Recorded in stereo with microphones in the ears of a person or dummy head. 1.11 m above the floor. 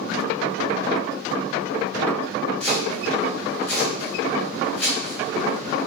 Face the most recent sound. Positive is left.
turn(degrees=10)  # may be behind; listen again after turning